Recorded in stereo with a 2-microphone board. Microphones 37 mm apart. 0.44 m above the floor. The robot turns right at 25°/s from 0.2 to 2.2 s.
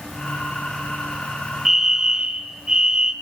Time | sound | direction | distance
1.6 | a fire alarm | 15° right (ahead or behind) | 3 m